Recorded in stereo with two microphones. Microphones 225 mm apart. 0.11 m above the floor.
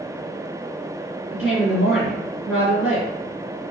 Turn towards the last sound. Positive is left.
turn(degrees=-5)  # may be behind; listen again after turning